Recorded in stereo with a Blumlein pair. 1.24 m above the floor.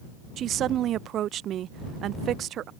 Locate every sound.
0.4 s a woman speaking: 30° right